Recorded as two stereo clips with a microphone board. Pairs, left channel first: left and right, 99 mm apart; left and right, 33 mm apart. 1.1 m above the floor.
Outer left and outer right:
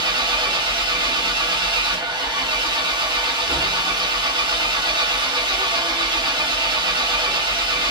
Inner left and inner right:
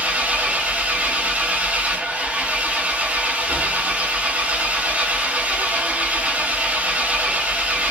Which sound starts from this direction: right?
An engine running, at 0.0 s.